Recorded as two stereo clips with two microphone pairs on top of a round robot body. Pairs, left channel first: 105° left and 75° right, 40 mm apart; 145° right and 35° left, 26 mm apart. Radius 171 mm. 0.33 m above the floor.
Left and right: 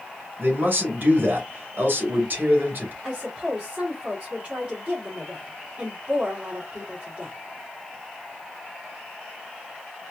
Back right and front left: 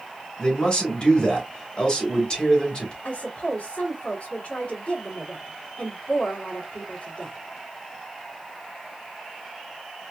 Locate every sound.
0.4 s a man speaking: 100° right, 2.5 m
3.0 s a woman speaking: 120° right, 2.5 m